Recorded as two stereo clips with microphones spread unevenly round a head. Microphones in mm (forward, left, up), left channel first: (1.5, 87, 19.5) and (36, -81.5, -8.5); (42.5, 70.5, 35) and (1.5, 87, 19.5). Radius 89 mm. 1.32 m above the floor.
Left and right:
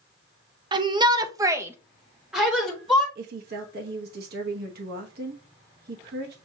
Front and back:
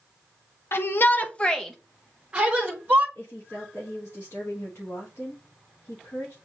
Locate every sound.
0.7 s a shout: 40° right, 0.6 m; by 3.0 s 170° right, 1.1 m
3.1 s a woman speaking: 75° right, 1.0 m